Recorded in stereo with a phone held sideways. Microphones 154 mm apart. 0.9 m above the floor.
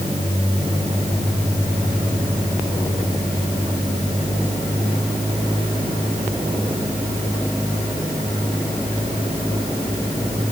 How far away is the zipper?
I don't hear a zipper.